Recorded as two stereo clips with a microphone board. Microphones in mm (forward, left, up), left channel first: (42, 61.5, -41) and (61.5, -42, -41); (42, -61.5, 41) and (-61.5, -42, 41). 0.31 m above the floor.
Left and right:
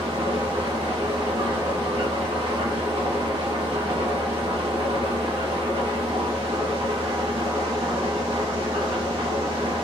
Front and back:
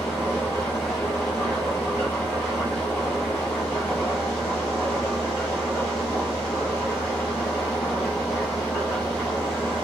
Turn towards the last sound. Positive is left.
turn(degrees=-75)